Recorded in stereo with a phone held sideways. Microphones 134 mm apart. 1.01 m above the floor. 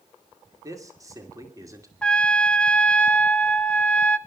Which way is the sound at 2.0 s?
5° left (ahead or behind).